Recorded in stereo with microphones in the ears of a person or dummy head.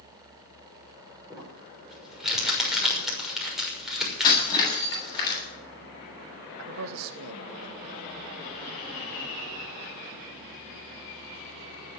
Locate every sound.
1.3 s crumpling: 5° right (ahead or behind), 6 m
4.2 s breaking glass: 20° left (ahead or behind), 8.5 m
6.6 s a man speaking: 75° right (ahead or behind), 1.8 m